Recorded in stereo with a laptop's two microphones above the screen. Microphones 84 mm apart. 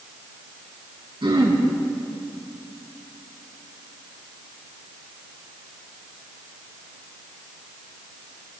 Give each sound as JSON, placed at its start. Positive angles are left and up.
{"t": 1.2, "sound": "throat clearing", "side_deg": -80, "distance_m": 3.5}